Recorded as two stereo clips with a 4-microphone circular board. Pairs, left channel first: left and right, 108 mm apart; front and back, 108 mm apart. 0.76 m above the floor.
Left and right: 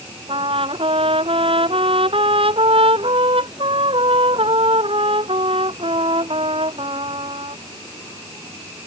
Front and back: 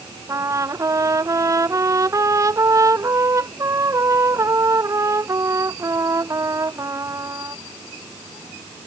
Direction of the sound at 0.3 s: 120° right.